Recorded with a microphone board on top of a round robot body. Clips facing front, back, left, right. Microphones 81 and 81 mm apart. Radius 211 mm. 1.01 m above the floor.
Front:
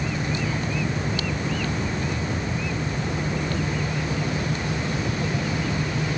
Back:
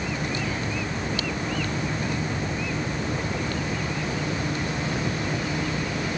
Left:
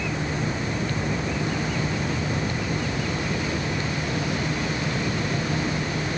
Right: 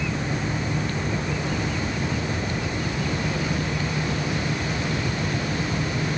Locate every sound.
Only background noise.